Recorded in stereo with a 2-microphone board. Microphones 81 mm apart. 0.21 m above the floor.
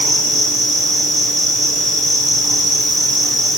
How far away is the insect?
About 6.5 m.